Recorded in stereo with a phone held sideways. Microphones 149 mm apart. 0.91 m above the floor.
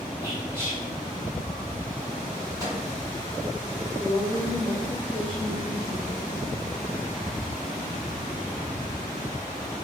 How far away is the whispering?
About 1.7 m.